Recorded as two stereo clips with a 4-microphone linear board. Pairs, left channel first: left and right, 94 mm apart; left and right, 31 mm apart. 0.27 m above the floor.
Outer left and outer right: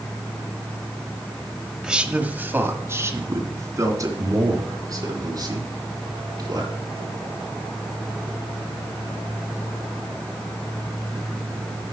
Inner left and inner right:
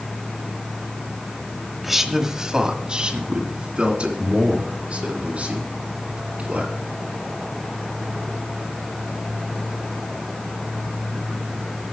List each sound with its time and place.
1.8 s a man speaking: 5° right (ahead or behind), 1.1 m; by 6.7 s 40° right (ahead or behind), 4.5 m